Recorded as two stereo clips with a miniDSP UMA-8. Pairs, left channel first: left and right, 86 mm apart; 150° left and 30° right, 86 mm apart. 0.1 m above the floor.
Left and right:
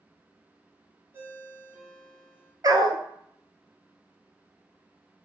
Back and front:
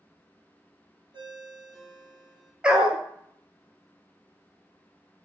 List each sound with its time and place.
1.1 s a ringtone: 25° right, 1.9 m
2.6 s a dog barking: 105° right, 0.7 m